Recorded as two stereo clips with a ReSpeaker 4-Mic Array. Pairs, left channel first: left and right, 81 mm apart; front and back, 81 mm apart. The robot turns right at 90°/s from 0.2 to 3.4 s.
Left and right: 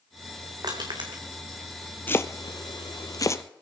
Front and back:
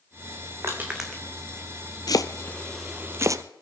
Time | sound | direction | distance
0.6 | crushing | 130° right | 2.5 m
2.1 | chopping | 25° left | 0.7 m